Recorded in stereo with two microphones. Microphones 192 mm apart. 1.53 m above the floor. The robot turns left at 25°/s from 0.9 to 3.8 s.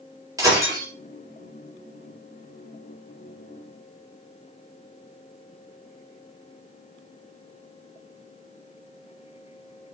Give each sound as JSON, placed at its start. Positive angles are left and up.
{"t": 0.4, "sound": "breaking glass", "side_deg": -15, "distance_m": 4.0}